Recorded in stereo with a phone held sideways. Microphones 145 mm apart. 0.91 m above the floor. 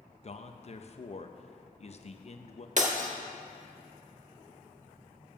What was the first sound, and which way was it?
A man speaking, 45° left (ahead or behind).